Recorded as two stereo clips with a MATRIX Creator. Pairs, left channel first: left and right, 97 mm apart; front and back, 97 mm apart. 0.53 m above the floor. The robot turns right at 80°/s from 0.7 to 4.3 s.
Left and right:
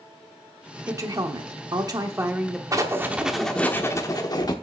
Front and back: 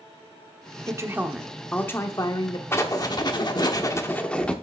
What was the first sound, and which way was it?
A woman speaking, 140° right.